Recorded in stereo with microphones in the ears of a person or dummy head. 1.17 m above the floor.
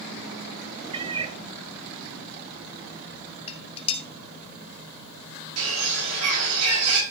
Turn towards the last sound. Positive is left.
turn(degrees=-90)